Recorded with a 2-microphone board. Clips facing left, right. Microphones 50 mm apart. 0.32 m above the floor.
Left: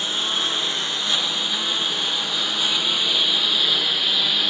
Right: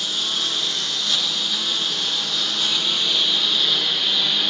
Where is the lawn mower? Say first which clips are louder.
Left 1 dB; 25° left (ahead or behind); by 4.5 s 5° left (ahead or behind).